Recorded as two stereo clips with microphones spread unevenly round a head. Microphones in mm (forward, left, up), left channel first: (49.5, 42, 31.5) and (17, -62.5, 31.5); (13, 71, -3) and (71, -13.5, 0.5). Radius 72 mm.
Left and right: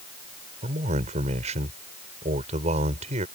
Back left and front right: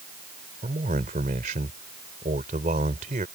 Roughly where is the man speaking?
Right.